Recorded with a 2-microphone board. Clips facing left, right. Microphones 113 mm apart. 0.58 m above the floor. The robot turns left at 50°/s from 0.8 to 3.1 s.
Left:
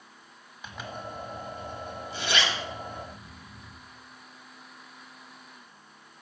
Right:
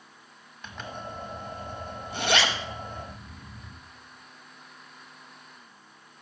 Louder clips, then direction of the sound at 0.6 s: Even; 5° left (ahead or behind).